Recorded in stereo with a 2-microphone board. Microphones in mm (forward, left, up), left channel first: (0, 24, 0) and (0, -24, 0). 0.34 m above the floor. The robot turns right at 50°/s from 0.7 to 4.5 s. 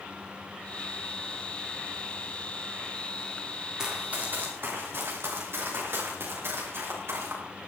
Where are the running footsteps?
10° right (ahead or behind), 4.5 m; by 7.4 s 55° right (ahead or behind), 6.5 m.